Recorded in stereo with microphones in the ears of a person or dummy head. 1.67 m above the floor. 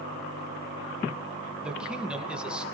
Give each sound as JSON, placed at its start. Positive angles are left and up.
{"t": 1.6, "sound": "a man speaking", "side_deg": -5, "distance_m": 2.0}